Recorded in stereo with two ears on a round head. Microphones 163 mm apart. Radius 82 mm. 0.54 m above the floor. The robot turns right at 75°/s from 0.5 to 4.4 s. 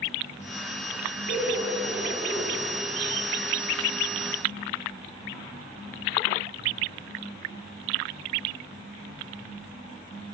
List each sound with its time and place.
1.3 s laughter: 110° left, 1.1 m; by 2.6 s 155° right, 1.1 m